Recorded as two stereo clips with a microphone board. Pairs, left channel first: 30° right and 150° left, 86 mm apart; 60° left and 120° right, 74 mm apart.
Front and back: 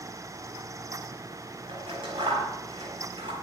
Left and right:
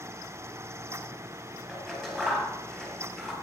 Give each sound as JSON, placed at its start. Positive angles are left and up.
{"t": 1.7, "sound": "scissors", "azimuth_deg": 140, "distance_m": 7.5}